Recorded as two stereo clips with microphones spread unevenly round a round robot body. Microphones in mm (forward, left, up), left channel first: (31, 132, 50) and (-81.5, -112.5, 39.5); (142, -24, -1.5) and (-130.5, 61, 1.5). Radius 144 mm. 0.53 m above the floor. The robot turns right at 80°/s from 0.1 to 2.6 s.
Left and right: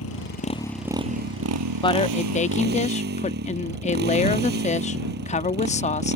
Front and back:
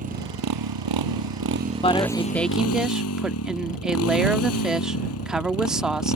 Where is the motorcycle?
100° left; by 6.2 s 60° right.